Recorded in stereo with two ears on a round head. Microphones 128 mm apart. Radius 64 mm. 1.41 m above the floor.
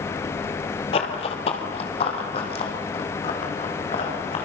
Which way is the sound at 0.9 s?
40° left (ahead or behind).